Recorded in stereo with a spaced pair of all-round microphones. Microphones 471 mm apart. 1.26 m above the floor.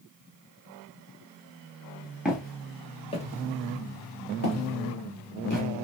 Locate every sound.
2.2 s footsteps: centre (ahead or behind), 1.3 m; by 5.7 s 40° left (ahead or behind), 1.8 m